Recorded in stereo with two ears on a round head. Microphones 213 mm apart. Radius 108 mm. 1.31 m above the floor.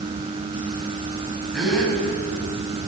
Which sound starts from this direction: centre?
A gasp, at 1.5 s.